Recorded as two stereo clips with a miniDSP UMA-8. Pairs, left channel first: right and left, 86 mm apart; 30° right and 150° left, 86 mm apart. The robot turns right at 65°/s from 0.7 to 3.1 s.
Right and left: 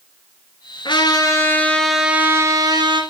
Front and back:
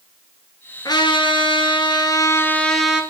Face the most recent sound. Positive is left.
turn(degrees=80)